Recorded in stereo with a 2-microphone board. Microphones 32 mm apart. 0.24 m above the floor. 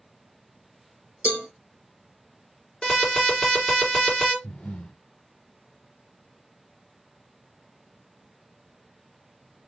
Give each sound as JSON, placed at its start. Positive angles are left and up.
{"t": 1.2, "sound": "a cowbell", "side_deg": -50, "distance_m": 1.1}
{"t": 2.8, "sound": "an alarm", "side_deg": 20, "distance_m": 4.0}
{"t": 4.4, "sound": "breathing", "side_deg": 45, "distance_m": 1.0}